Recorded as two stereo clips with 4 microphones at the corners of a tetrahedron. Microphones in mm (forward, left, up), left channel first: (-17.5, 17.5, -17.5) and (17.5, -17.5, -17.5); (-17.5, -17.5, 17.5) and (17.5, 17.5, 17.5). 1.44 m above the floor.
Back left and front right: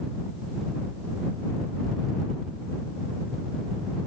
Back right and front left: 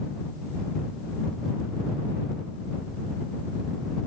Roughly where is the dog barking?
No dog barking in this recording.